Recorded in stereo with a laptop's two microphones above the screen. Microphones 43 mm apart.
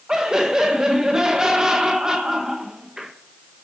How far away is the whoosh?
No whoosh in this recording.